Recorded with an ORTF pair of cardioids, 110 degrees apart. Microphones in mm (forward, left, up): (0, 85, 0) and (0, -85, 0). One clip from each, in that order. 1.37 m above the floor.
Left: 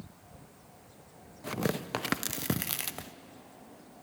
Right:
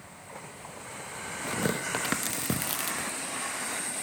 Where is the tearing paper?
5° left, 0.7 m.